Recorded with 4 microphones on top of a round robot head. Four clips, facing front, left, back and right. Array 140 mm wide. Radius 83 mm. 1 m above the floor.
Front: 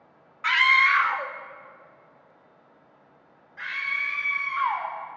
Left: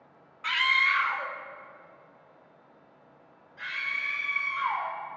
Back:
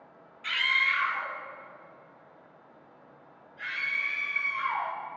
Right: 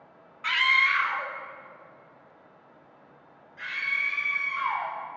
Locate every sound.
0.4 s a scream: straight ahead, 1.8 m; by 4.9 s 10° left, 8.5 m